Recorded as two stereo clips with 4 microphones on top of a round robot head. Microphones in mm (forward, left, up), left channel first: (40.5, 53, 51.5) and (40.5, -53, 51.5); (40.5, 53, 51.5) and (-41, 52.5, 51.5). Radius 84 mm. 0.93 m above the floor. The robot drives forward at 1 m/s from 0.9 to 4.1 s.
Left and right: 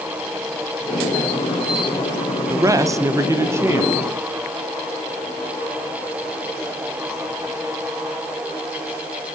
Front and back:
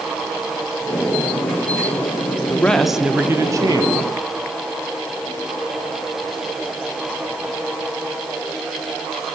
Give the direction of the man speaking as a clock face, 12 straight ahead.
2 o'clock.